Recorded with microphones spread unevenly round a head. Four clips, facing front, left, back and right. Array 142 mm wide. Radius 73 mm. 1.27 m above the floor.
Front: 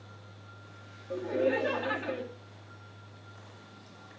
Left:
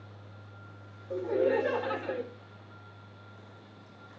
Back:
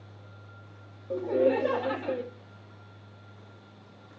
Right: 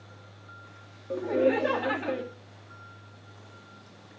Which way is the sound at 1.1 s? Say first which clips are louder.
Right 2 dB, back 4 dB; 130° right.